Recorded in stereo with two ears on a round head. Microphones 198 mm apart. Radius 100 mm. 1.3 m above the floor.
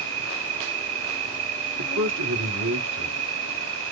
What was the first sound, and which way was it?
An insect, 65° right (ahead or behind).